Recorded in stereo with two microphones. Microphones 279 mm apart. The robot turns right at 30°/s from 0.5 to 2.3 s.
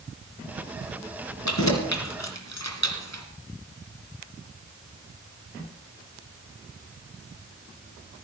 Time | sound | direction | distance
1.4 | keys jangling | 80° left | 3 m